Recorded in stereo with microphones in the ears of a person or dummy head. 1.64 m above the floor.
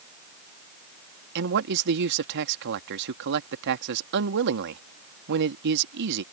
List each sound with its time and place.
1.4 s a man speaking: 65° right (ahead or behind)